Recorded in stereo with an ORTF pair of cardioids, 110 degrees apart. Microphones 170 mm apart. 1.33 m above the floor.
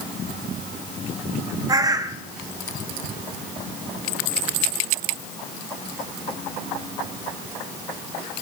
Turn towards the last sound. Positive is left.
turn(degrees=-20)